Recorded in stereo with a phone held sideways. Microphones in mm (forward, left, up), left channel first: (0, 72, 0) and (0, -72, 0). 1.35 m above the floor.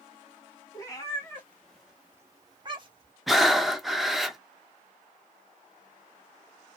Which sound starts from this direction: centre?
Breathing, at 3.3 s.